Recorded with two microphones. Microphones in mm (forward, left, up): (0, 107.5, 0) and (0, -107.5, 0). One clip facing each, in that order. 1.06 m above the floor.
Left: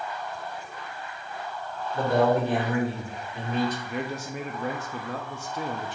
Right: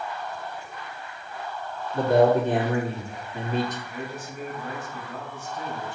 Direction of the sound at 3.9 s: 80° left.